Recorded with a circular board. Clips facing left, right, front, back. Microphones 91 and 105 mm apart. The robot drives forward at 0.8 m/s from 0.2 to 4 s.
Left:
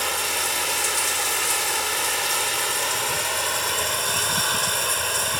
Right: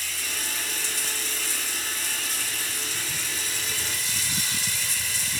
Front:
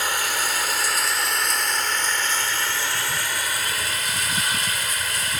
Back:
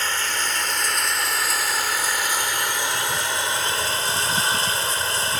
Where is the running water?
80° left; by 5.4 s 120° left.